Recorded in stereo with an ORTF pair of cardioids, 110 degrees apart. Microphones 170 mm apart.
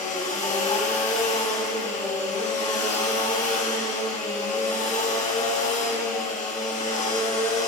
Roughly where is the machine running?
Ahead left.